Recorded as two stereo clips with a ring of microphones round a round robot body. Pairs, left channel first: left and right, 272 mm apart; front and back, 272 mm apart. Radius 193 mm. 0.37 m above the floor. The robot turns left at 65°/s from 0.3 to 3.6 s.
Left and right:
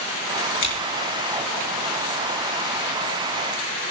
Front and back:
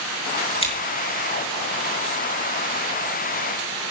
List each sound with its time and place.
0.6 s scissors: 70° left, 5.5 m; by 0.7 s 60° left, 5.5 m